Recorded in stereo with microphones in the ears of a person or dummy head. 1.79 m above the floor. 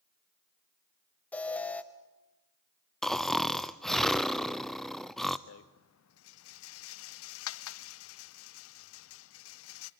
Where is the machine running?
I don't hear a machine running.